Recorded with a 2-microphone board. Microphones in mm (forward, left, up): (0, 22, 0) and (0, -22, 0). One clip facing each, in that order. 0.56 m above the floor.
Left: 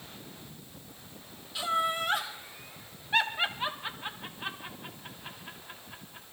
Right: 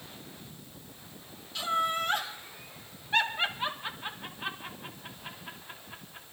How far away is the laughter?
About 1.9 m.